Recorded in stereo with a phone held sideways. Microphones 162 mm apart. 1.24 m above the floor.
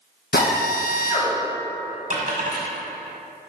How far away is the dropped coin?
About 1.6 m.